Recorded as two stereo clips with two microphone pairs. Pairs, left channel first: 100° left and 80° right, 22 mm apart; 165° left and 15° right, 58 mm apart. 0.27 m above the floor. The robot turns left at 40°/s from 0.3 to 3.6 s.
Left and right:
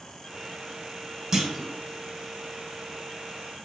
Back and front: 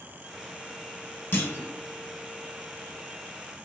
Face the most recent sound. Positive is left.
turn(degrees=120)